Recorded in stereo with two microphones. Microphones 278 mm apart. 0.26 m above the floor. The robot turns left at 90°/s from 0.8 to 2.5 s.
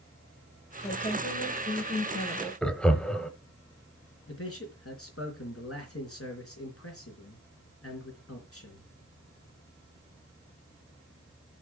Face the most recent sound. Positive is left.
turn(degrees=55)  # may be behind; listen again after turning